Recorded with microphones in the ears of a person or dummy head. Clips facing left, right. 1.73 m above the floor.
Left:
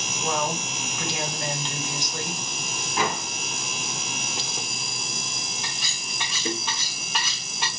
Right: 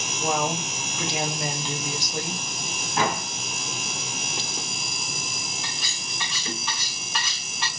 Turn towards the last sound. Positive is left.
turn(degrees=20)  # may be behind; listen again after turning